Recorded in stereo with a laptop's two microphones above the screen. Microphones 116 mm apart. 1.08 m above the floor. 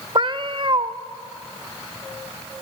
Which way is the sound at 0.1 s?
45° right (ahead or behind).